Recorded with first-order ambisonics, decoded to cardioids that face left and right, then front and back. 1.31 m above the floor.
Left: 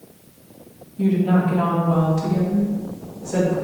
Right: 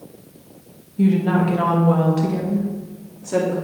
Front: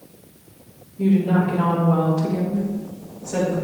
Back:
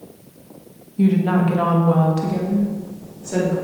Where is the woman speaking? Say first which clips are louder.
Right 1 dB, back 1 dB; 150° right, 1.9 m; by 3.5 s 125° right, 3.5 m.